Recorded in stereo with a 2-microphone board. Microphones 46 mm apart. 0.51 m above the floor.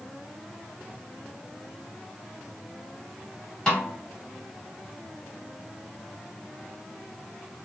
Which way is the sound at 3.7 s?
15° left (ahead or behind).